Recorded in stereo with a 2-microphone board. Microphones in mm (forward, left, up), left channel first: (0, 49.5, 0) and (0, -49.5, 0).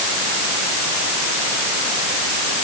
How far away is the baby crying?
No baby crying in this recording.